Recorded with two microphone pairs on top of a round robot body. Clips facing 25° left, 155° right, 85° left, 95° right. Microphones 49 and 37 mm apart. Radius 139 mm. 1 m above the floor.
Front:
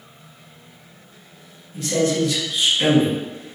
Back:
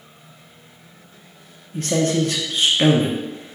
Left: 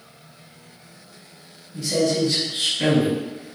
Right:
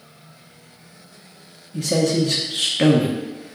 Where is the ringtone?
I don't hear a ringtone.